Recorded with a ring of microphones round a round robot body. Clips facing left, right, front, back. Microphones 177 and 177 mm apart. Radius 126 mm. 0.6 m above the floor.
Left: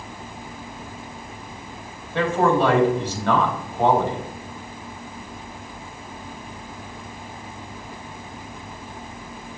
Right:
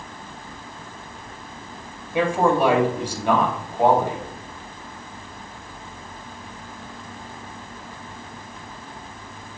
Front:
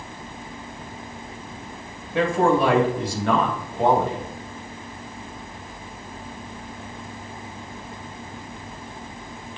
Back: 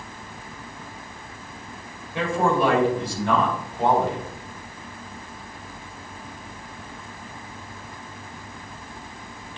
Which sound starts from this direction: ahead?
A man speaking, at 2.1 s.